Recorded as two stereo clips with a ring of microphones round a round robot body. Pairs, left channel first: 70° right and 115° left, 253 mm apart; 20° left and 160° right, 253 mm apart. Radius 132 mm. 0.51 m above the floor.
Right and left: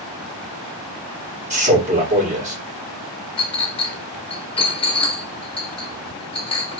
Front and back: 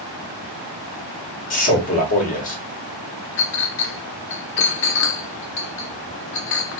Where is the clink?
Straight ahead, 1.0 m.